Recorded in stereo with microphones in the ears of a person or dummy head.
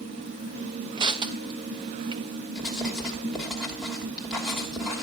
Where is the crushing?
25° right (ahead or behind), 0.9 m.